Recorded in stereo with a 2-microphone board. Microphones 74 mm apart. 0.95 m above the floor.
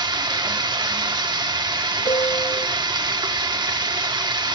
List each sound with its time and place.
0.0 s running water: 75° right (ahead or behind), 1.8 m
2.0 s a piano: 70° left (ahead or behind), 1.0 m